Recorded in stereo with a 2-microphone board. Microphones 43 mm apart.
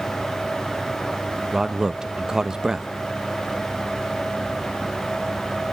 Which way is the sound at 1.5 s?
15° right (ahead or behind).